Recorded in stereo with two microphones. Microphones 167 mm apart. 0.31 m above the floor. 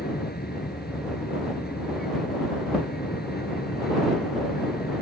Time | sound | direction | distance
0.0 | an aircraft | 75° left (ahead or behind) | ?